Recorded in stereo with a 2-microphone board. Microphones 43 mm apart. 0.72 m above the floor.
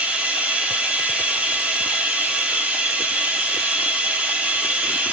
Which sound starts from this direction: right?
Running water, at 0.0 s.